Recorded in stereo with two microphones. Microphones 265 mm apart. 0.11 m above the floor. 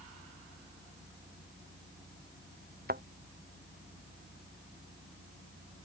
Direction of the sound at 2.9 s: 35° right (ahead or behind).